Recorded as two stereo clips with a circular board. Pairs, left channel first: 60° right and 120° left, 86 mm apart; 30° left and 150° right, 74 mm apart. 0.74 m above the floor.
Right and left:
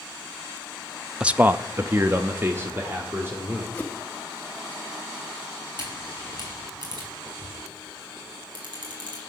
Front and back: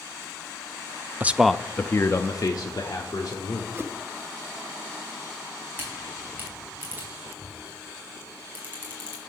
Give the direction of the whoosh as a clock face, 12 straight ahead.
4 o'clock.